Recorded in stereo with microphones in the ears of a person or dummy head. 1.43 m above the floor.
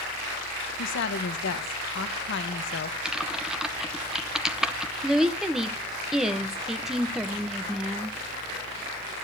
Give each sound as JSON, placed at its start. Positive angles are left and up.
{"t": 0.8, "sound": "a woman speaking", "side_deg": 60, "distance_m": 1.1}
{"t": 3.0, "sound": "typing on a keyboard", "side_deg": -10, "distance_m": 0.7}
{"t": 5.0, "sound": "a woman speaking", "side_deg": -10, "distance_m": 0.9}